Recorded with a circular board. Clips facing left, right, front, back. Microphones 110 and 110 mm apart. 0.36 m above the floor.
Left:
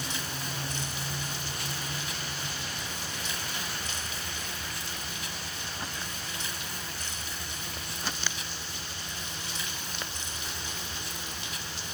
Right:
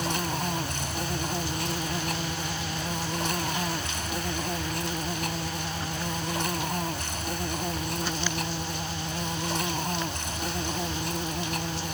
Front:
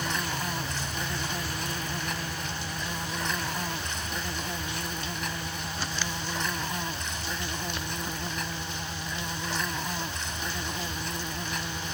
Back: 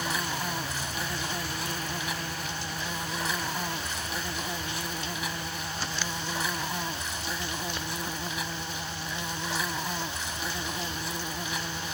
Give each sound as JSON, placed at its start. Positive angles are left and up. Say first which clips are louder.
{"t": 0.0, "sound": "an insect", "louder": "right 8 dB, even", "azimuth_deg": -95}